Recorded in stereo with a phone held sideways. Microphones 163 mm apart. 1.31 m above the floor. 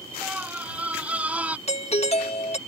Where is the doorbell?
40° left (ahead or behind).